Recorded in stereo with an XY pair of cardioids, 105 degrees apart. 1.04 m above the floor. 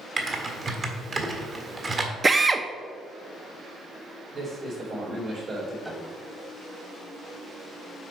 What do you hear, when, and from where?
0.2 s typing on a keyboard: 35° right, 1.5 m
2.2 s a drill: 25° right, 0.6 m
4.3 s a man speaking: 50° right, 3 m
5.8 s a piano: 15° right, 1.3 m